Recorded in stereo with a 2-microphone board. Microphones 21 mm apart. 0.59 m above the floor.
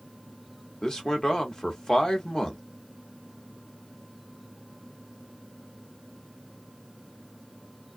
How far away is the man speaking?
About 1.1 m.